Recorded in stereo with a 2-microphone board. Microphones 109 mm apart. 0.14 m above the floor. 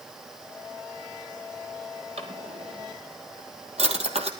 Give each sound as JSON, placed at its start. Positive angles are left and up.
{"t": 2.2, "sound": "a drawer", "side_deg": -70, "distance_m": 2.5}